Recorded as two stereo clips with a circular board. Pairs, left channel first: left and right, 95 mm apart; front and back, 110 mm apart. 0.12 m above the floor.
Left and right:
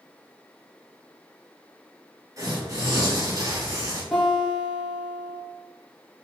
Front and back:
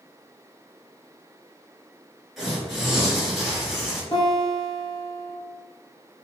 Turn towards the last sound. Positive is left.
turn(degrees=5)